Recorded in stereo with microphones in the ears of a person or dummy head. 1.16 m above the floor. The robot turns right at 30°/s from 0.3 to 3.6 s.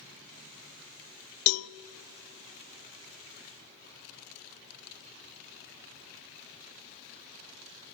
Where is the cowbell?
80° left, 0.5 m; by 1.7 s 75° left (ahead or behind), 0.5 m.